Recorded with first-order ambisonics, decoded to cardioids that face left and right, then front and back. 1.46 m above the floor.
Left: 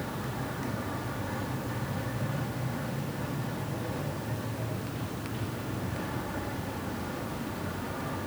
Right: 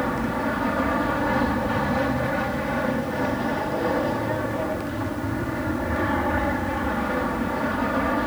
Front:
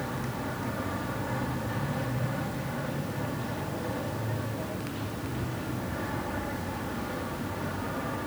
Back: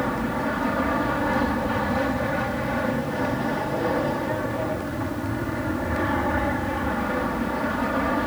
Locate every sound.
0.0 s an aircraft: 130° right